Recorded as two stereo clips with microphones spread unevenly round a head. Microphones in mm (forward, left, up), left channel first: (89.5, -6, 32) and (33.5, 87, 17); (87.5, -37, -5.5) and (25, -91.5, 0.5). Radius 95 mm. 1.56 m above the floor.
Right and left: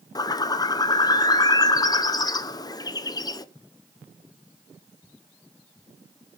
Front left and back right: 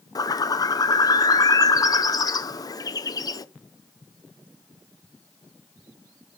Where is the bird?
5° right, 0.9 m.